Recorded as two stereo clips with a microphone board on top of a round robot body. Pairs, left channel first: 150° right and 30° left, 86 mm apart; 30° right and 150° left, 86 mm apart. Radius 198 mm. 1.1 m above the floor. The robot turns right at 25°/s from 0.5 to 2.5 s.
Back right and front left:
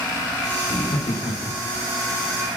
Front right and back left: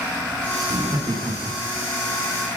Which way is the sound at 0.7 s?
175° right.